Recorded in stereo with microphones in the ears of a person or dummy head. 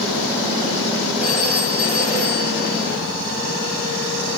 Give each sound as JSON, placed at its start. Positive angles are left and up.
{"t": 1.2, "sound": "a phone ringing", "side_deg": -55, "distance_m": 3.5}